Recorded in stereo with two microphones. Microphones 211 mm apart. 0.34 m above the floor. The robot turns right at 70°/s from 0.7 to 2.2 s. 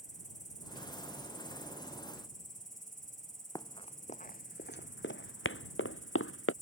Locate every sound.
0.0 s an insect: 35° left; by 6.6 s 140° left
3.5 s running footsteps: 20° left (ahead or behind); by 6.5 s 80° left